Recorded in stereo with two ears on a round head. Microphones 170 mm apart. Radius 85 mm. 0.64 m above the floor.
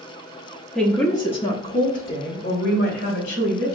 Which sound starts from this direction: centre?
A woman speaking, at 0.8 s.